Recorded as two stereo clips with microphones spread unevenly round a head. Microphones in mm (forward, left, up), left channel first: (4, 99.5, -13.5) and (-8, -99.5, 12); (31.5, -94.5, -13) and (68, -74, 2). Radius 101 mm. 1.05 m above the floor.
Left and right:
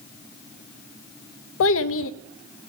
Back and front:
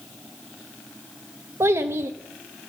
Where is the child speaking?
55° left, 0.5 m.